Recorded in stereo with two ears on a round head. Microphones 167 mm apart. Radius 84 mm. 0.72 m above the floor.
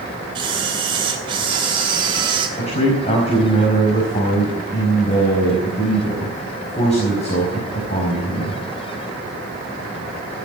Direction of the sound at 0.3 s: 25° right (ahead or behind).